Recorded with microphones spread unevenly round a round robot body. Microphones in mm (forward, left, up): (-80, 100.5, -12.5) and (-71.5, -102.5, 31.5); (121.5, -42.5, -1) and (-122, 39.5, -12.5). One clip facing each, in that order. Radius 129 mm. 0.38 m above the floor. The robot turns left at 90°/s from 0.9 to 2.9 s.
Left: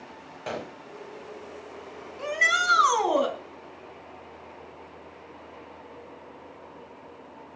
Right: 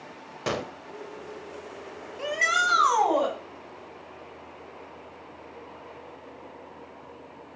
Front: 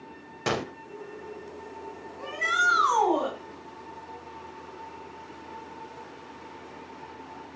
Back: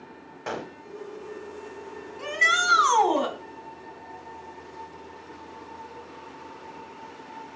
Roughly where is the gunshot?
Ahead right.